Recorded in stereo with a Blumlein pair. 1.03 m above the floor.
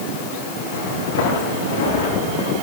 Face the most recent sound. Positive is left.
turn(degrees=60)